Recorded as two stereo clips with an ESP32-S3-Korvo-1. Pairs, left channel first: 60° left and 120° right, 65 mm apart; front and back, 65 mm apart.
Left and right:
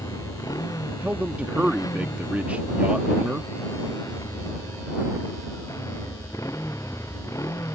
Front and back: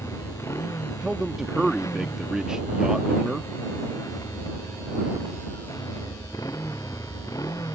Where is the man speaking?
115° right.